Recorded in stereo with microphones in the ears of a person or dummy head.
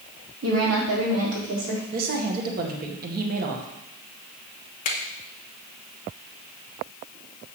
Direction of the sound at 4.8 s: 45° left (ahead or behind).